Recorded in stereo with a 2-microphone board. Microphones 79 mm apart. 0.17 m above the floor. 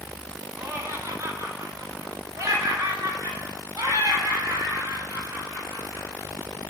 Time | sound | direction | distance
0.6 | laughter | 30° right (ahead or behind) | 1.5 m